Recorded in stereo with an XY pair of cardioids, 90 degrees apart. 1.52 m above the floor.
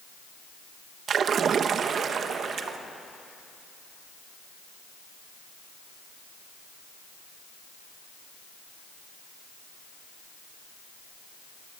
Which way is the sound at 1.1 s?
65° right.